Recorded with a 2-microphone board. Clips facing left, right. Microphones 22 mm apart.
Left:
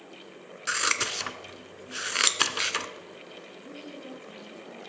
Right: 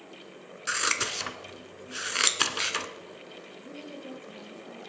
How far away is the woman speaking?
About 4.5 m.